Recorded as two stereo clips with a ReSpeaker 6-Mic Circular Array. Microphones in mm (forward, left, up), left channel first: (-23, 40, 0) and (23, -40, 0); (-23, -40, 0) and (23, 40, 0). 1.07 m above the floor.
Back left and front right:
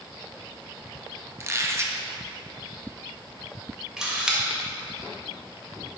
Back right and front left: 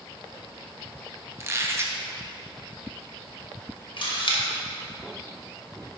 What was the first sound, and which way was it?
A squeak, straight ahead.